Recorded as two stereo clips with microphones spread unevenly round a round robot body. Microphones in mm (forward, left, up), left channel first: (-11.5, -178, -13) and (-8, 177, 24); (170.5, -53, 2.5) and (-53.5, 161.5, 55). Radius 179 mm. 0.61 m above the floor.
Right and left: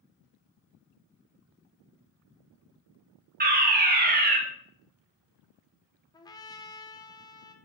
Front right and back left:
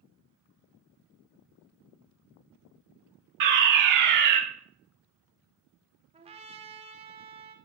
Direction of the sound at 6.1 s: 150° right.